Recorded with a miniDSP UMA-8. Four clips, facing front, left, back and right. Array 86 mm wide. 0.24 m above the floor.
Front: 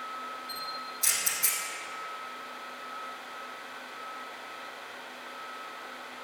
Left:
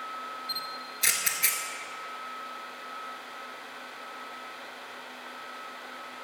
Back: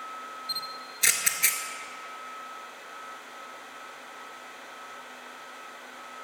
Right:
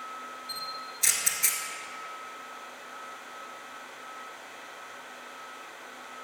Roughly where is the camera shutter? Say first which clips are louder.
Left 1 dB, front 1 dB; behind.